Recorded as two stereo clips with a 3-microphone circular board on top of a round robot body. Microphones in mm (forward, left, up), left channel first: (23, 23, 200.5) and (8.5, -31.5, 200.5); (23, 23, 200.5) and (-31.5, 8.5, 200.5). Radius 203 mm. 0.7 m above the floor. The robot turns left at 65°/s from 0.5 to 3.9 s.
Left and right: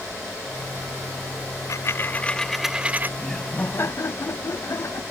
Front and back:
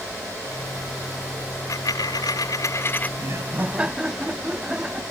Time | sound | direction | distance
1.7 | a dropped coin | 45° left | ?
3.2 | laughter | 165° left | ?